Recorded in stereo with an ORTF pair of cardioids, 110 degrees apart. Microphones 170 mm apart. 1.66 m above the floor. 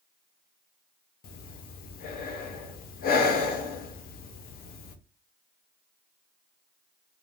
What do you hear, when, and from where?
1.2 s breathing: 60° left, 0.6 m